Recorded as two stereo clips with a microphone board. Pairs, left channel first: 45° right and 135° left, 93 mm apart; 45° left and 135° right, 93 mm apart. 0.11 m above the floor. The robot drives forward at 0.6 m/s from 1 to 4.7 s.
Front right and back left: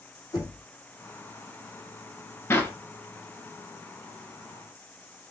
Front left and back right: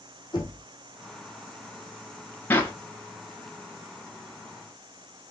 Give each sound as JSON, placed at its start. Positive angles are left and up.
{"t": 0.3, "sound": "knocking", "azimuth_deg": 0, "distance_m": 2.5}
{"t": 2.5, "sound": "a clap", "azimuth_deg": -5, "distance_m": 1.0}